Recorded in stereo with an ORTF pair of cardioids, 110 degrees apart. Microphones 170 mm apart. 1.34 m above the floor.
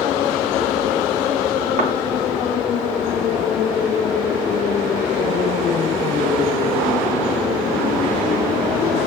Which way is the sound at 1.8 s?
55° right.